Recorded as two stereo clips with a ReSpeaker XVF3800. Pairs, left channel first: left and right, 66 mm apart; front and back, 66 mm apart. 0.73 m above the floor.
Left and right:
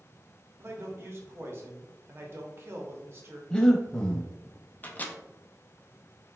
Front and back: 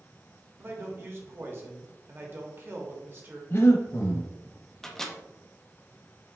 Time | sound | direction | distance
0.6 | a man speaking | 135° right | 1.0 m
3.5 | breathing | 20° left | 0.7 m
4.8 | a microwave | 75° left | 0.5 m